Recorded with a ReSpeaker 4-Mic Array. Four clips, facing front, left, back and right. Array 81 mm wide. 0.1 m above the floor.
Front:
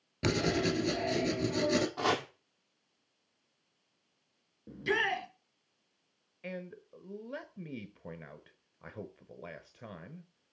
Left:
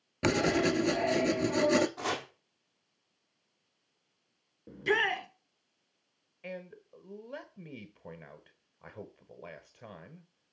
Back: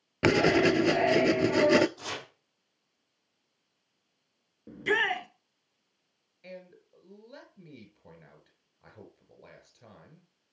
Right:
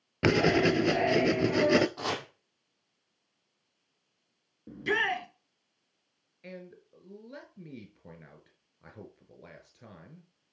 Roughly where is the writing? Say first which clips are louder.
Right 3 dB, back 8 dB; behind right.